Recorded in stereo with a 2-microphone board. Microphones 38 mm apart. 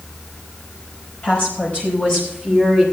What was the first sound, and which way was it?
A woman speaking, 40° left (ahead or behind).